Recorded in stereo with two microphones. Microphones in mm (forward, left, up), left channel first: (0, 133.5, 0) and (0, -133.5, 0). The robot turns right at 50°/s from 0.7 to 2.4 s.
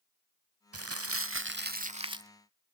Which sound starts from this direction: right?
Crumpling, at 0.7 s.